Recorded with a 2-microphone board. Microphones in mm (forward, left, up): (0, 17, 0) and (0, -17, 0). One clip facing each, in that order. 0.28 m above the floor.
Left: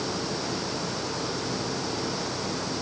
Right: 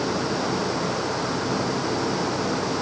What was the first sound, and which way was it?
Only background noise.